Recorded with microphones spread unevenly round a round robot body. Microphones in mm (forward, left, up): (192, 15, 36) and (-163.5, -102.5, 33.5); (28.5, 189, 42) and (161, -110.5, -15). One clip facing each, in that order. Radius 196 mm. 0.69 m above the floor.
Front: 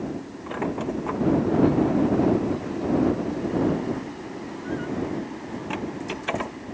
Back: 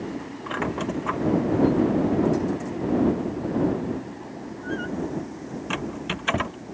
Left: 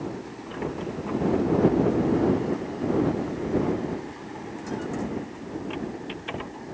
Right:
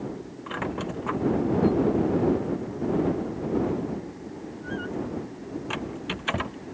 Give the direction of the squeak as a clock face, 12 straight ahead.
4 o'clock.